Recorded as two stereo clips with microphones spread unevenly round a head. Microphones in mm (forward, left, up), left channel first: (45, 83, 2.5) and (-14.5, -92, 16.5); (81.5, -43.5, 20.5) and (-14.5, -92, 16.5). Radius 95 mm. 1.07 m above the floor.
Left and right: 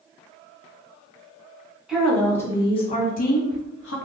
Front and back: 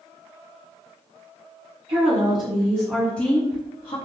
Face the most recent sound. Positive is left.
turn(degrees=75)